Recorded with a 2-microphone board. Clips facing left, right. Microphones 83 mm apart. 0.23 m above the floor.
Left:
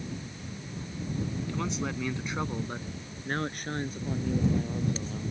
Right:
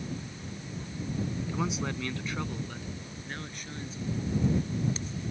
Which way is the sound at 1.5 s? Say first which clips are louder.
Even; 15° right (ahead or behind).